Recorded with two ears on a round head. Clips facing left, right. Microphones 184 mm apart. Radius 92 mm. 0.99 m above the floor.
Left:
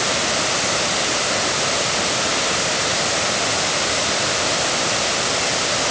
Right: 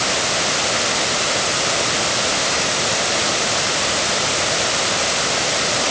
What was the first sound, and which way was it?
Only background noise.